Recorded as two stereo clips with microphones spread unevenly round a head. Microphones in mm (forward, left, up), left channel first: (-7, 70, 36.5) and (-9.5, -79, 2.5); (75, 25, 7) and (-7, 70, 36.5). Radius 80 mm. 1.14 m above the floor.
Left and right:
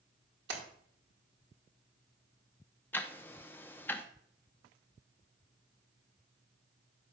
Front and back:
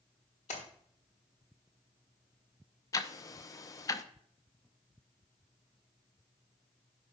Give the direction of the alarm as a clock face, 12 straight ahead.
No alarm in this recording.